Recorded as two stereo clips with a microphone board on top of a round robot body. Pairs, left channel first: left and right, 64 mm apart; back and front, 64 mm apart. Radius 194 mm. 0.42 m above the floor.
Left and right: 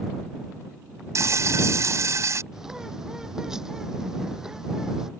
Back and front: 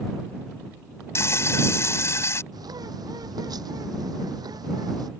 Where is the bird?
5° right.